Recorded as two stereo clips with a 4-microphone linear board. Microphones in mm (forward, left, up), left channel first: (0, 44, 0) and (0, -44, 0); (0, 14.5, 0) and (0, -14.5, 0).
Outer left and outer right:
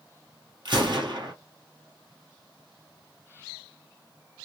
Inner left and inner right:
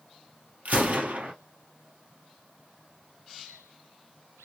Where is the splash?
No splash in this recording.